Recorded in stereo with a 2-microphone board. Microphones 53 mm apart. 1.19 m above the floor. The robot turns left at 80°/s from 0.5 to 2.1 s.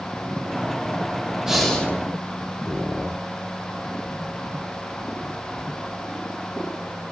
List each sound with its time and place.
1.5 s breathing: 170° right, 1.4 m; by 1.9 s 155° left, 1.4 m